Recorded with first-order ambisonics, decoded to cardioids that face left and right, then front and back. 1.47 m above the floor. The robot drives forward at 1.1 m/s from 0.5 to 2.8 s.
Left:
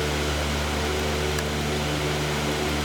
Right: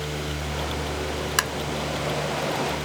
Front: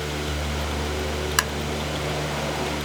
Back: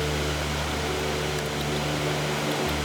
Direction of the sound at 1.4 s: 35° right.